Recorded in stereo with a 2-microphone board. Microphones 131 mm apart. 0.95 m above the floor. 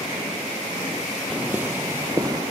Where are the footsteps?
10° right (ahead or behind); by 2.4 s 30° right (ahead or behind).